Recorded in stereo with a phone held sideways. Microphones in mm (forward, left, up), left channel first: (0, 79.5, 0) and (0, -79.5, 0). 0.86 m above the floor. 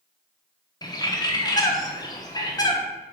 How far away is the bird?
About 0.5 m.